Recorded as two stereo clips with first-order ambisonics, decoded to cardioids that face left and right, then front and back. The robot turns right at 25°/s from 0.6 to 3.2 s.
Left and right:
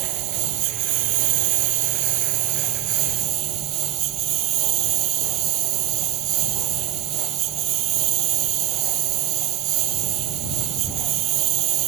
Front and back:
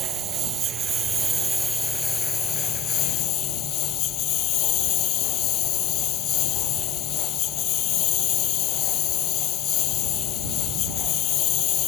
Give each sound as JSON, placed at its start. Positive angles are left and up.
{"t": 0.0, "sound": "a lawn mower", "azimuth_deg": -115}